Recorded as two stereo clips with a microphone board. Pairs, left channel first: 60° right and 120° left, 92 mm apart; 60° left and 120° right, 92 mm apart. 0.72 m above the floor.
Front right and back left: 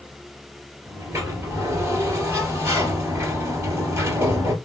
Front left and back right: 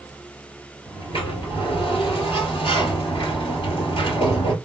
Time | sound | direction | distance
0.9 | a sliding door | 60° left | 3 m